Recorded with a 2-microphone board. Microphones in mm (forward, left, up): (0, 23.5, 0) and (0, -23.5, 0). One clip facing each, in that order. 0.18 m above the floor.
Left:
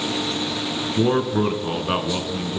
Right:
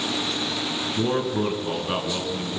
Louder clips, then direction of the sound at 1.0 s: Left 5 dB; 25° left (ahead or behind).